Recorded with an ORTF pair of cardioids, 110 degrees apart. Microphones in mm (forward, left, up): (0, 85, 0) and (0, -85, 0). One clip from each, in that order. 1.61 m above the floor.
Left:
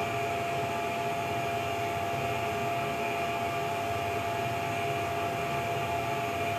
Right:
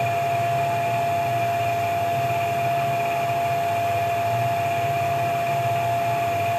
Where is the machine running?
55° right, 0.7 m.